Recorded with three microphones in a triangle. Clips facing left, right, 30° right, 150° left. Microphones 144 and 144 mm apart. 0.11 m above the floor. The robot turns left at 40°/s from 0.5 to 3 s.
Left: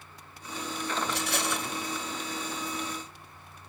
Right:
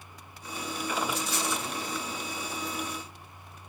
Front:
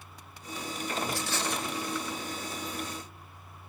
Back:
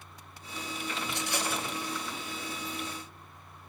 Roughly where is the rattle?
Left.